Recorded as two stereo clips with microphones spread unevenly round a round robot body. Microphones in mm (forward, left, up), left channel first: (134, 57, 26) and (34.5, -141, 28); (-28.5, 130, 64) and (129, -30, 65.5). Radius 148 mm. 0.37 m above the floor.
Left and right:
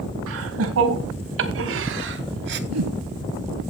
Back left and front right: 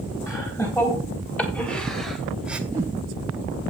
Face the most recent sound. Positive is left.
turn(degrees=-125)